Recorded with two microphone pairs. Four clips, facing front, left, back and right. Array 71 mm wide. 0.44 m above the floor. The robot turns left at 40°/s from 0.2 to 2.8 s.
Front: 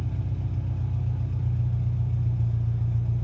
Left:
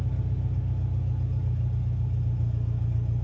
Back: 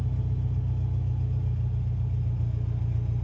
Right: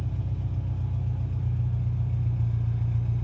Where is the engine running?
10° left, 1.2 m; by 3.2 s 90° right, 1.2 m.